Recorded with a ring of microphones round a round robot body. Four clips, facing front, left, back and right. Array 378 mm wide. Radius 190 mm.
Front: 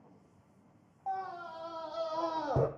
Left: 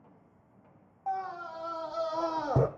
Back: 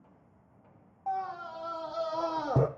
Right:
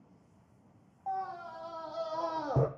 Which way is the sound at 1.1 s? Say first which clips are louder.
Left 2 dB, back 4 dB; 130° left.